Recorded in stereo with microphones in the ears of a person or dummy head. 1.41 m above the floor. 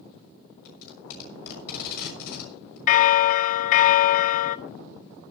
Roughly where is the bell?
Left.